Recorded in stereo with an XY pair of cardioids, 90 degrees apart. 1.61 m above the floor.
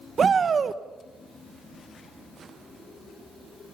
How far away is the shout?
About 1.7 m.